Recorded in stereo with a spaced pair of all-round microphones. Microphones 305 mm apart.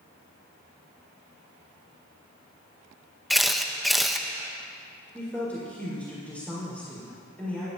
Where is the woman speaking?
5° left (ahead or behind), 4.5 m.